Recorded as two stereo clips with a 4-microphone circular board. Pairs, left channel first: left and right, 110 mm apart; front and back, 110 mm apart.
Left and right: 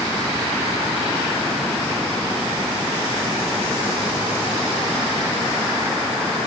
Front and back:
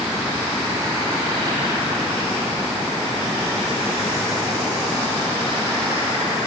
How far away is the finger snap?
No finger snap in this recording.